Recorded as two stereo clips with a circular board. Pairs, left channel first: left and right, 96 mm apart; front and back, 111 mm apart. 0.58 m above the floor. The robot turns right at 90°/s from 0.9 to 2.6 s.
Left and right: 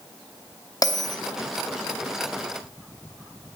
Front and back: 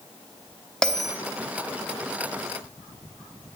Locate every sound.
0.8 s a bell: 80° left, 1.0 m; by 1.2 s 105° left, 1.0 m